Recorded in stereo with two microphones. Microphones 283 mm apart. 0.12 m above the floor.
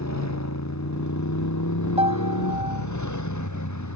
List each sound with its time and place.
0.0 s a motorcycle: 70° left (ahead or behind); by 4.0 s 80° left
2.0 s a piano: 20° right (ahead or behind)